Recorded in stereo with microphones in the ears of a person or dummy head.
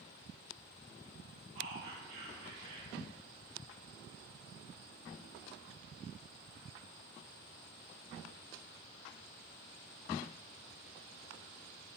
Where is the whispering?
60° right (ahead or behind), 1.5 m.